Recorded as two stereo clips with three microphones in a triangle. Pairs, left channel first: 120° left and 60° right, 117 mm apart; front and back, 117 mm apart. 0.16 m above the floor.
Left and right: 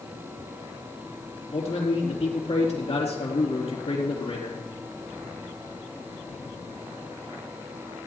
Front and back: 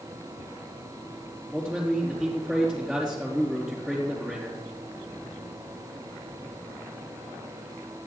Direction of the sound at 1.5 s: 90° left.